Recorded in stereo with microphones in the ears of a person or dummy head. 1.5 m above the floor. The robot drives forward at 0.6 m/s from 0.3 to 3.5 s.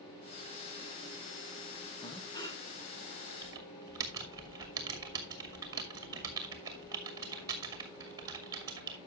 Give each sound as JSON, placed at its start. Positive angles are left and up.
{"t": 2.0, "sound": "breathing", "side_deg": 25, "distance_m": 1.3}
{"t": 3.4, "sound": "typing on a keyboard", "side_deg": -25, "distance_m": 1.7}